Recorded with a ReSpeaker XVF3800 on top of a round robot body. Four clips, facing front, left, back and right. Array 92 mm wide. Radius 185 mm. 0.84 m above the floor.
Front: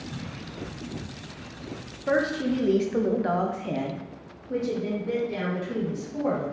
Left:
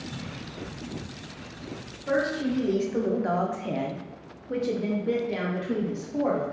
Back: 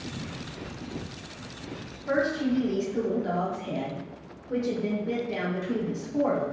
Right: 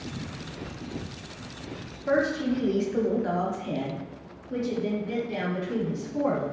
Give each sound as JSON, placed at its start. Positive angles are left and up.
{"t": 2.1, "sound": "a woman speaking", "azimuth_deg": -15, "distance_m": 1.2}